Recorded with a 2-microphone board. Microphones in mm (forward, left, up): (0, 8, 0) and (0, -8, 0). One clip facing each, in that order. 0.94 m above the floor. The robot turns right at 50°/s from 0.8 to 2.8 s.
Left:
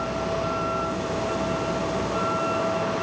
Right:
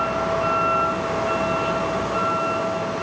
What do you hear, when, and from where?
0.0 s a vehicle: 110° right; by 3.0 s 10° right